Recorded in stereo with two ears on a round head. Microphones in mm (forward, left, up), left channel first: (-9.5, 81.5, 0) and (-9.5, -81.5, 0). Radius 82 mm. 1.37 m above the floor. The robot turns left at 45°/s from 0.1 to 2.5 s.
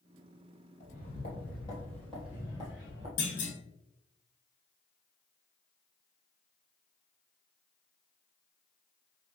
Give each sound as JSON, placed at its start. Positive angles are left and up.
{"t": 0.8, "sound": "footsteps", "side_deg": 40, "distance_m": 1.8}
{"t": 3.2, "sound": "a clunk", "side_deg": 45, "distance_m": 1.3}